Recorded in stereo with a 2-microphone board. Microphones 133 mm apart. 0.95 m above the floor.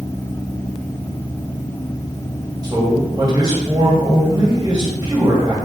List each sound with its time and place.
2.6 s a man speaking: 30° right (ahead or behind), 1.6 m